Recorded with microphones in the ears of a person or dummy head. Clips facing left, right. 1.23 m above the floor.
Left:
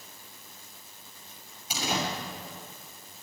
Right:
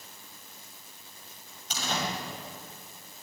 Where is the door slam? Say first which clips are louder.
Left 2 dB; 10° left (ahead or behind), 6.5 m.